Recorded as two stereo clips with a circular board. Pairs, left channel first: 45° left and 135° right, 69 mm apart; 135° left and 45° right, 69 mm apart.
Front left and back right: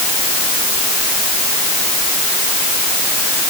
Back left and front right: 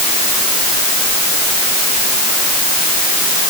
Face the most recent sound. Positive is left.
No sound to turn to.